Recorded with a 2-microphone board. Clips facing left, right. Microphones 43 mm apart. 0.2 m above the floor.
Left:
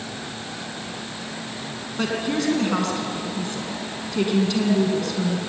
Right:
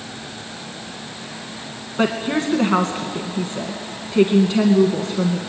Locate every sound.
2.0 s a woman speaking: 30° right (ahead or behind), 2 m